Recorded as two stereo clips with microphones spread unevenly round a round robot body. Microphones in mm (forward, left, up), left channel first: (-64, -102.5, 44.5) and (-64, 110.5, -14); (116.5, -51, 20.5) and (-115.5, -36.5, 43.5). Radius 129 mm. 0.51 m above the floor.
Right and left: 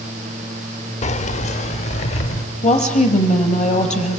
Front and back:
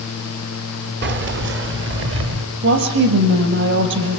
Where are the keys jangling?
155° right, 1.0 m; by 2.5 s 150° right, 1.6 m.